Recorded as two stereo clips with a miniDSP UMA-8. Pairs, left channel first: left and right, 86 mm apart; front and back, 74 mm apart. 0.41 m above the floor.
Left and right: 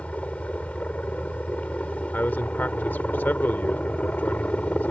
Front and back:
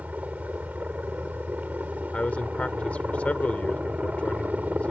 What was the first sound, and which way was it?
A helicopter, 145° left.